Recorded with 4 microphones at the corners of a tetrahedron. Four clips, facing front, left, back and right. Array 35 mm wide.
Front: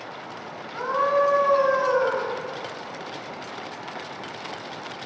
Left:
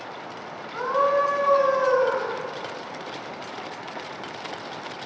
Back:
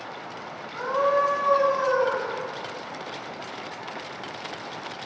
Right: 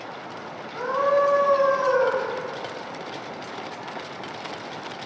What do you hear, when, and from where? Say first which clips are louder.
0.7 s a scream: even, front 1 dB; 70° left, 2 m; by 2.3 s 45° right, 2 m